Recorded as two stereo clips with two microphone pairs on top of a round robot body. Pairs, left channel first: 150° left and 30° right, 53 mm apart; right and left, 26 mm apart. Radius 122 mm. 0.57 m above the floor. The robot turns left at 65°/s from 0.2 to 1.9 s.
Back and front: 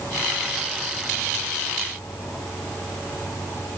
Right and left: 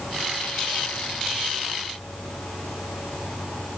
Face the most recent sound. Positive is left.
No sound to turn to.